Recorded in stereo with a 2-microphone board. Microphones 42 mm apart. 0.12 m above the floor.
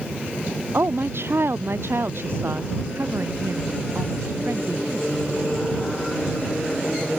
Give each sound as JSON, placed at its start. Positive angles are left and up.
{"t": 0.7, "sound": "a woman speaking", "side_deg": -65}